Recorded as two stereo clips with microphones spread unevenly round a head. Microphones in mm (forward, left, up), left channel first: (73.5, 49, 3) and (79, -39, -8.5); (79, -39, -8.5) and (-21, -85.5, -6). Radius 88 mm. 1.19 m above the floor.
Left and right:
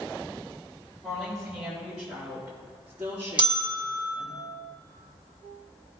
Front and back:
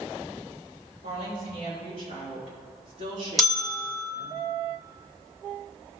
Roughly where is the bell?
Ahead right.